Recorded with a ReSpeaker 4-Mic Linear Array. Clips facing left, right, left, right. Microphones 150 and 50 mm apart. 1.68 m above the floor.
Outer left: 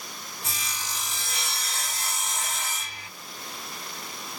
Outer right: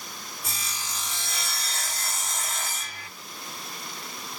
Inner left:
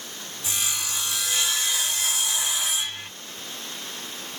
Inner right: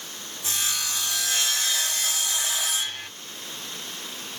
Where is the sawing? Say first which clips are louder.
Outer left 2 dB, even; 50° right (ahead or behind), 2 m.